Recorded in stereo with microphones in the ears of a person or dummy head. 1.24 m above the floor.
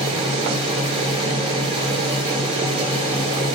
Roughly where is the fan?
Right.